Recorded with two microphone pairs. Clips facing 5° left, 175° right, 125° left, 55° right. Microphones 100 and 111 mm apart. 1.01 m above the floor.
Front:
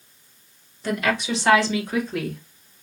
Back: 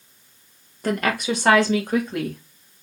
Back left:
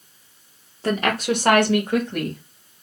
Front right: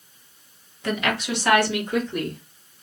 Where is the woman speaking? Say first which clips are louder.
Back 1 dB, back left 4 dB; 170° left, 1.0 m; by 2.4 s 150° left, 2.0 m.